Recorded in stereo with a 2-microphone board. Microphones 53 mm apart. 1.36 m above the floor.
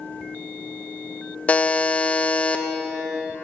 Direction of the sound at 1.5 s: 25° left (ahead or behind).